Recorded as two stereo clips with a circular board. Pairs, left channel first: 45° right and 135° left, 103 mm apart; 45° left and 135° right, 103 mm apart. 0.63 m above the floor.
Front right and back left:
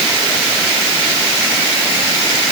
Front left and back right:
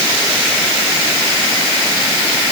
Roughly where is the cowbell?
No cowbell in this recording.